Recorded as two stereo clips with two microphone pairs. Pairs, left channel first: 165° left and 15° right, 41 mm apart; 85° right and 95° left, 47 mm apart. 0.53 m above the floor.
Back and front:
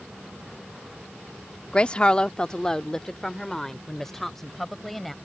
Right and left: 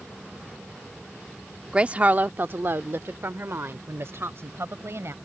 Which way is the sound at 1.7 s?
145° left.